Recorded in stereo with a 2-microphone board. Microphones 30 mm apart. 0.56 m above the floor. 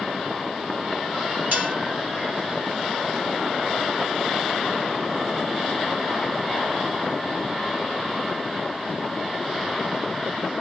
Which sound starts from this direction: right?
Dishes clattering, at 1.5 s.